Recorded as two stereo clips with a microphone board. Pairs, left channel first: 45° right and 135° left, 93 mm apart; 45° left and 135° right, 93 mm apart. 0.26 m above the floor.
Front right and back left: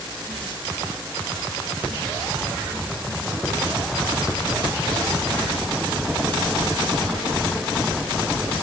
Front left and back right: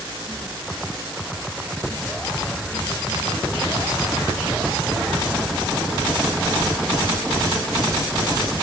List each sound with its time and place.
Only background noise.